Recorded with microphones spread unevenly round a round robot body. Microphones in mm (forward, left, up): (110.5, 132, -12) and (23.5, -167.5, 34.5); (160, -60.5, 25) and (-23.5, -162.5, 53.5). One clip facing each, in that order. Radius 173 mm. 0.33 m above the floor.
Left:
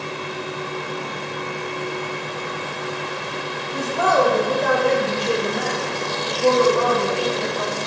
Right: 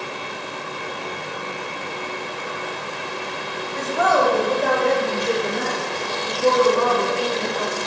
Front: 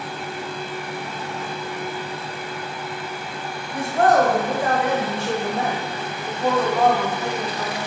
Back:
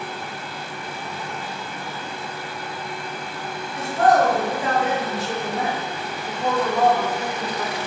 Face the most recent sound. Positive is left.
turn(degrees=-65)